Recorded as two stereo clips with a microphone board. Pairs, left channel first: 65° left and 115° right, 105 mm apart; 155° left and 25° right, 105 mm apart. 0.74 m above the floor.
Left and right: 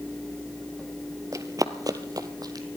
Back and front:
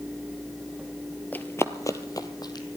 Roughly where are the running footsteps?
Behind right.